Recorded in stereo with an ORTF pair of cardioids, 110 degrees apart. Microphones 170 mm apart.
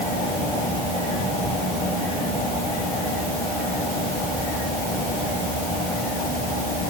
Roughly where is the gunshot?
No gunshot in this recording.